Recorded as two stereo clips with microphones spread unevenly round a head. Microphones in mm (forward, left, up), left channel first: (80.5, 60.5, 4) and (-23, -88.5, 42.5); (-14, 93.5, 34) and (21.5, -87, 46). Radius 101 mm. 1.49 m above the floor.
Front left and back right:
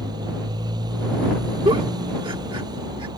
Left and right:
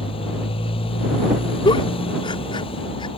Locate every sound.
0.0 s a motorcycle: 165° left
1.6 s a giggle: 170° left